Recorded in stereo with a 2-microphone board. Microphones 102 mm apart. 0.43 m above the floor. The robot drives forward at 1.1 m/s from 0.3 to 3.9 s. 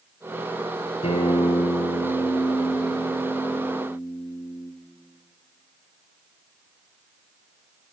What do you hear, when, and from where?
1.0 s a guitar: 80° left, 4.5 m; by 4.7 s 60° left (ahead or behind), 5 m